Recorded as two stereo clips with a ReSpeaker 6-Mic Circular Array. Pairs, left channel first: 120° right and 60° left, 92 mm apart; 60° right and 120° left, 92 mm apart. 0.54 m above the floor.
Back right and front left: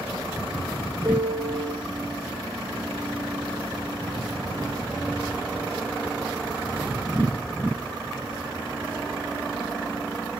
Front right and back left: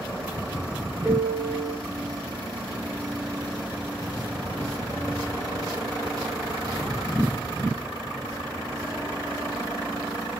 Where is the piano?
95° left, 4 m.